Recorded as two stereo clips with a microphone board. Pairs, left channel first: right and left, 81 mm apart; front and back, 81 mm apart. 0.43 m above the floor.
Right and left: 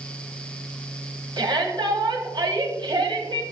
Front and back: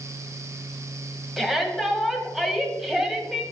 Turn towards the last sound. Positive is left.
turn(degrees=90)